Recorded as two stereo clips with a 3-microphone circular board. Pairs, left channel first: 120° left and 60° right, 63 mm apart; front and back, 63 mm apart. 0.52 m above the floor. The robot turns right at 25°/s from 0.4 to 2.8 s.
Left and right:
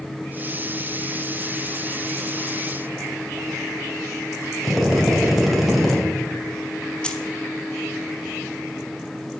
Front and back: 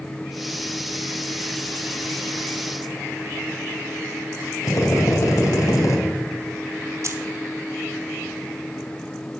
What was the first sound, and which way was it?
A drill, 30° left.